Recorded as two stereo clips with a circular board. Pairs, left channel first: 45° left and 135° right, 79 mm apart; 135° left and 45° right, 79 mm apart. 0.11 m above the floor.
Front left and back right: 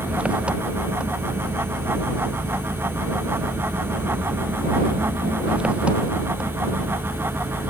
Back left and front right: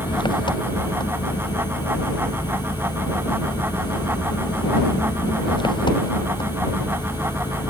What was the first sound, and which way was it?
An engine running, 150° left.